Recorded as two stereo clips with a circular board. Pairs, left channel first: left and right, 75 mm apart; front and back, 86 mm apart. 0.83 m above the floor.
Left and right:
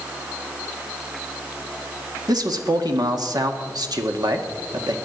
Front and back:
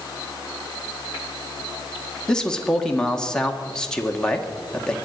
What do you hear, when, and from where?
2.3 s a man speaking: 80° right, 1.7 m